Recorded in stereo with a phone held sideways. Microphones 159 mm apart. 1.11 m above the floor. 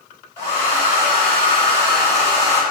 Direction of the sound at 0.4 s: 30° right (ahead or behind).